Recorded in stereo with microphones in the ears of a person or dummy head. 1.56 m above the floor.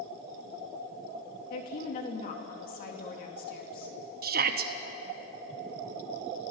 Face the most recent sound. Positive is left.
turn(degrees=-50)  # may be behind; listen again after turning